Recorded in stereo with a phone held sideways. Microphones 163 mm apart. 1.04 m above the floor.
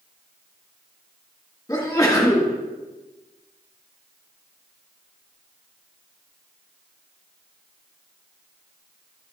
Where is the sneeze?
20° left (ahead or behind), 1.9 m.